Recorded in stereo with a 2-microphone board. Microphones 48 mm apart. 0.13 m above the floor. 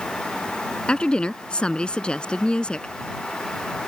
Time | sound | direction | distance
0.9 | a woman speaking | 20° left (ahead or behind) | ?